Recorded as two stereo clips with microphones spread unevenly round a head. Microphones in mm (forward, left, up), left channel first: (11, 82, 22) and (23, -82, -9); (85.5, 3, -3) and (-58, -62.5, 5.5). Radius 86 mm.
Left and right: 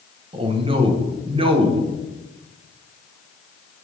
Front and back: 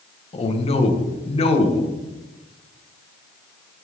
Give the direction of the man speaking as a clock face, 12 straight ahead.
1 o'clock.